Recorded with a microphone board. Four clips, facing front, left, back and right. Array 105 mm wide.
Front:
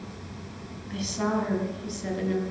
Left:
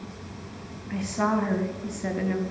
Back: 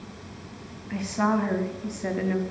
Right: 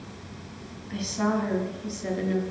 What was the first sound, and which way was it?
A woman speaking, 145° left.